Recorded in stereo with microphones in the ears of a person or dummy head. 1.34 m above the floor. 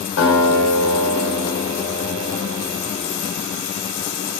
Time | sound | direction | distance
0.2 | a guitar | 65° left (ahead or behind) | 2 m